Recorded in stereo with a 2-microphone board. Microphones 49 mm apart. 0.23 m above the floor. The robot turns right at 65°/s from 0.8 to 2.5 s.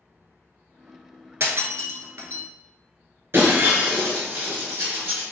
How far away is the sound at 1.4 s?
About 0.7 m.